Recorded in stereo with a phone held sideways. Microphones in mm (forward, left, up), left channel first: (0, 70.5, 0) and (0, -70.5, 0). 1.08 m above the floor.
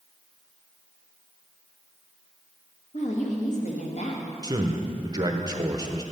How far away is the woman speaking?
About 1.5 m.